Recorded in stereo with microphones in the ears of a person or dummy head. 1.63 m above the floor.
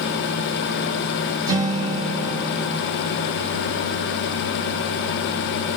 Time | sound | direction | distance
1.5 | a guitar | 20° right (ahead or behind) | 1.0 m